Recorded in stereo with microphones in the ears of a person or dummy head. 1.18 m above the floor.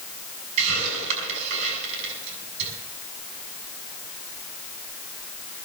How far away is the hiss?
About 6.5 m.